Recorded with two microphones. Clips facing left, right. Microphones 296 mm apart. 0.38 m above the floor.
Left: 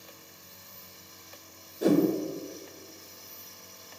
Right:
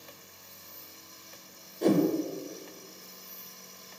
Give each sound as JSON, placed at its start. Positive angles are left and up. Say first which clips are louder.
{"t": 1.8, "sound": "a whoosh", "louder": "left 1 dB", "side_deg": 5, "distance_m": 0.6}